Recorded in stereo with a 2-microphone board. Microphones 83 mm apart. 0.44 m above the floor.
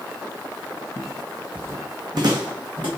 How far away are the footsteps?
About 0.9 m.